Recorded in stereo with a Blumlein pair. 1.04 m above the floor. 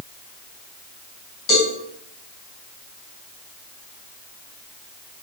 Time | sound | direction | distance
1.5 | a cowbell | 35° left | 3.5 m